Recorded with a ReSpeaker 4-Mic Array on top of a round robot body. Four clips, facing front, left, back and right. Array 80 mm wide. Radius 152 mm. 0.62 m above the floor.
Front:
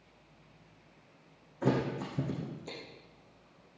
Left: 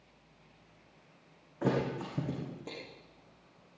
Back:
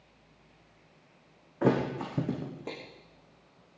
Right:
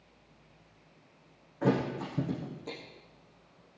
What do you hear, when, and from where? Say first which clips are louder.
1.6 s a thud: right 2 dB, back 4 dB; 175° left, 7.5 m